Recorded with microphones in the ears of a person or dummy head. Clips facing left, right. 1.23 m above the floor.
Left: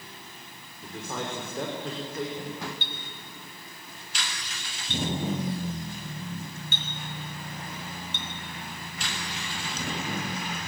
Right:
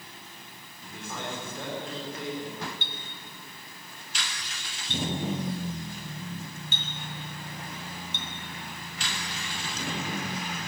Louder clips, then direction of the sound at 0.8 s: Left 3 dB; 45° left (ahead or behind).